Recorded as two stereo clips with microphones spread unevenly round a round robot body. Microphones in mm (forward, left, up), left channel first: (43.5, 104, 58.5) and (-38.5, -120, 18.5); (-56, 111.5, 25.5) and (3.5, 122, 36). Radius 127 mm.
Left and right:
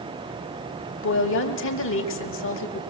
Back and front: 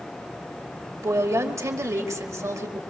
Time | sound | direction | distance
1.0 | a woman speaking | 35° left | 2.5 m